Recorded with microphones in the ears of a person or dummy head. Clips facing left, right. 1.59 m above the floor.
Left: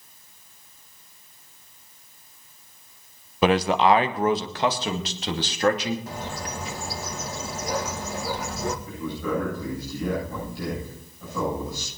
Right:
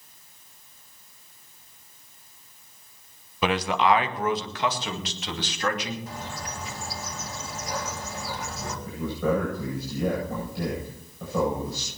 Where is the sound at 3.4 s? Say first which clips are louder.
Left 4 dB; 35° left (ahead or behind), 1.0 m; by 6.0 s 30° left (ahead or behind), 3 m.